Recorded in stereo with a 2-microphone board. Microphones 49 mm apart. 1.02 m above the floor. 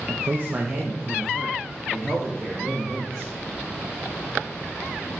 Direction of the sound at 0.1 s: 55° right (ahead or behind).